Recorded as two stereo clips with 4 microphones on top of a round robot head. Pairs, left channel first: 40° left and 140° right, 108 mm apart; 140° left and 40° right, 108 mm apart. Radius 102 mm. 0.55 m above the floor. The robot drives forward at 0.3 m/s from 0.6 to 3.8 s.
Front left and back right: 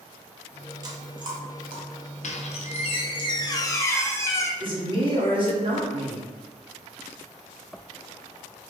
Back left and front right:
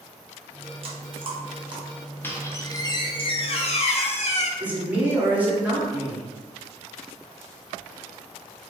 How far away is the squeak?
About 0.7 m.